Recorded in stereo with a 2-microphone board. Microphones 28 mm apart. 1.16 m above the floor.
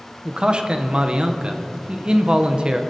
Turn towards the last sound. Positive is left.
turn(degrees=-35)  # may be behind; listen again after turning